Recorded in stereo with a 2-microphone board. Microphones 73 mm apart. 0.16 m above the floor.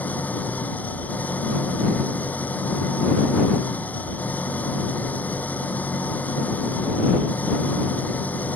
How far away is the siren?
I don't hear a siren.